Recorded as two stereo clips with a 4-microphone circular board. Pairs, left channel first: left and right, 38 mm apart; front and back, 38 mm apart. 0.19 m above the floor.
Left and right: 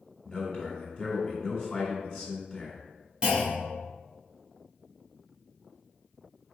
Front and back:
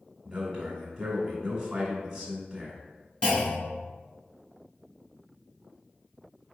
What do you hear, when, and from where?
0.2 s a man speaking: 100° left, 1.6 m
3.2 s a clunk: 50° right, 1.9 m